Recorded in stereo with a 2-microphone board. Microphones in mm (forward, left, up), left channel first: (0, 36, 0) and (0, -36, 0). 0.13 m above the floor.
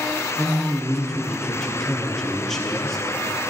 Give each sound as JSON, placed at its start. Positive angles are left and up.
{"t": 0.4, "sound": "a man speaking", "side_deg": 5, "distance_m": 3.0}